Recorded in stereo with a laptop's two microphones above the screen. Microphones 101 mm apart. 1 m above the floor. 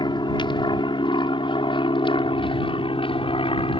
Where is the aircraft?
50° left (ahead or behind); by 3.8 s 65° left (ahead or behind).